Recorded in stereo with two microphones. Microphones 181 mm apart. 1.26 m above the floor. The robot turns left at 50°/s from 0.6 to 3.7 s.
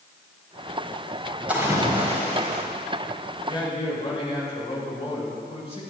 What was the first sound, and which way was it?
A splash, 10° right.